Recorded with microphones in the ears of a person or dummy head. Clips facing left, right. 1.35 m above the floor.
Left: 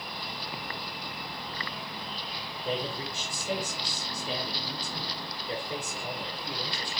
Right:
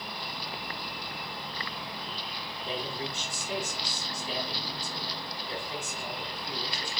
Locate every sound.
2.6 s a man speaking: 25° left (ahead or behind), 0.7 m